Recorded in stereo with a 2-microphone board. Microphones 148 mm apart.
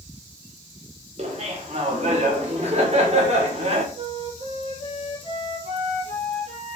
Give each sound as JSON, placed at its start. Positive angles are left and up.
{"t": 1.2, "sound": "laughter", "side_deg": -50, "distance_m": 1.8}
{"t": 4.0, "sound": "a flute", "side_deg": -60, "distance_m": 4.5}